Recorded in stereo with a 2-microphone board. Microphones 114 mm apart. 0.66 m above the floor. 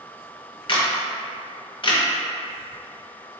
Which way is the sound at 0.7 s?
45° left (ahead or behind).